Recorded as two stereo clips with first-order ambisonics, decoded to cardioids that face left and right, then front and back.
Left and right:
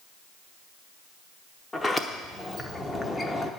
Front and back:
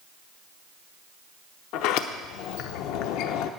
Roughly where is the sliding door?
Ahead.